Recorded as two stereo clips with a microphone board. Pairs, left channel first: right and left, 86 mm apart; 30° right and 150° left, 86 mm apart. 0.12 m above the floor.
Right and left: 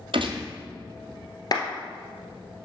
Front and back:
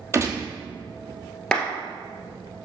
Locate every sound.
0.1 s a gunshot: 95° left, 1.3 m
1.5 s a clap: 110° right, 1.7 m